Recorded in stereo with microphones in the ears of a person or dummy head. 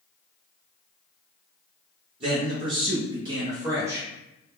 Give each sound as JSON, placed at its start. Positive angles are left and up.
{"t": 2.2, "sound": "a man speaking", "side_deg": -30, "distance_m": 0.9}